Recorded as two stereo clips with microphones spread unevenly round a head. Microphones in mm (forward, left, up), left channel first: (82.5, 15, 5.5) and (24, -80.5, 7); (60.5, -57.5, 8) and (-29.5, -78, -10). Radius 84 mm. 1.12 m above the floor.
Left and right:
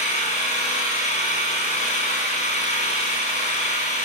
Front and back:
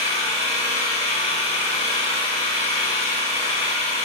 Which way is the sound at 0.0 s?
50° left.